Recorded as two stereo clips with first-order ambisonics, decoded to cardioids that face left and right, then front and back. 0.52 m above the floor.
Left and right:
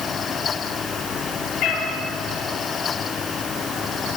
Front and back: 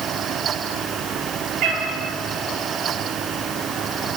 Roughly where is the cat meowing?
Behind left.